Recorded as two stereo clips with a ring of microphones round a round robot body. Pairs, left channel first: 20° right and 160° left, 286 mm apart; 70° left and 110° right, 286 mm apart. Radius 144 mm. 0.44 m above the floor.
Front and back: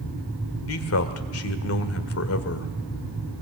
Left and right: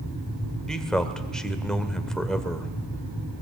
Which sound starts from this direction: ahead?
A man speaking, at 0.7 s.